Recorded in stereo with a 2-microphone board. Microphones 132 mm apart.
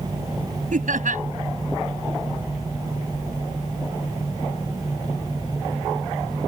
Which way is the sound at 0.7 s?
80° right.